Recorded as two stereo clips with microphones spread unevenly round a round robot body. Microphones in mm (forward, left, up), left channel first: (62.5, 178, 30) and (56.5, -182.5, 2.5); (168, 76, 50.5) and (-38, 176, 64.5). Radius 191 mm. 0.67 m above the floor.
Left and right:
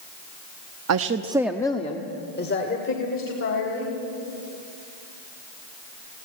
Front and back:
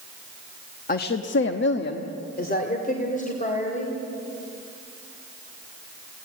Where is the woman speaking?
65° right, 0.8 m; by 4.0 s 35° left, 3.5 m.